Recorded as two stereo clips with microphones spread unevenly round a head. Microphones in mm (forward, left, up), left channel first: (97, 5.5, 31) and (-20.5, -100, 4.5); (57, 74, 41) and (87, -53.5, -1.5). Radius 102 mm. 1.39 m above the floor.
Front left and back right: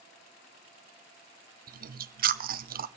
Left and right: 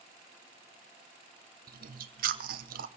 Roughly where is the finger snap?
I don't hear a finger snap.